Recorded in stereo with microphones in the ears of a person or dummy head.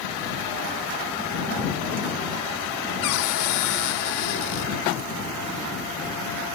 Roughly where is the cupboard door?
Left.